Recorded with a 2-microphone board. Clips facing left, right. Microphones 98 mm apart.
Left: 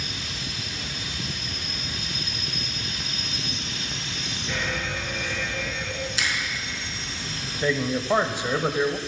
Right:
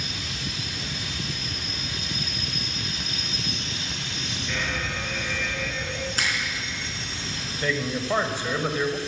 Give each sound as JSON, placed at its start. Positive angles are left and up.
{"t": 4.5, "sound": "an alarm", "side_deg": 10, "distance_m": 3.5}
{"t": 6.2, "sound": "a finger snap", "side_deg": -45, "distance_m": 4.0}
{"t": 7.6, "sound": "a man speaking", "side_deg": 15, "distance_m": 1.0}